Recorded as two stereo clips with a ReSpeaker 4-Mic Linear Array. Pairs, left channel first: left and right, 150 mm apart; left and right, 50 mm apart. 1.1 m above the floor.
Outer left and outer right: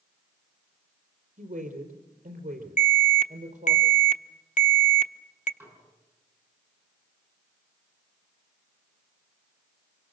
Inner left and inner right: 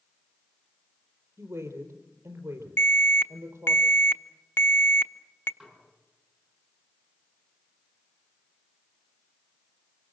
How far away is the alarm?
About 0.8 m.